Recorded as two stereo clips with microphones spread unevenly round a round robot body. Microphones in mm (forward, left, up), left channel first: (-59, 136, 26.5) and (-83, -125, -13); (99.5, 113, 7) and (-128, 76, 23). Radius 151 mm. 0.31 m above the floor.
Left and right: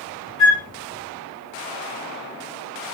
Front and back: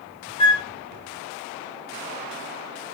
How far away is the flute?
About 1.3 m.